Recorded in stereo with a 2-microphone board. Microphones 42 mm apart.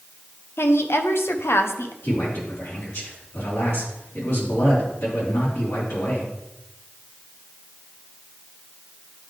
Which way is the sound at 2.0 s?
70° left (ahead or behind).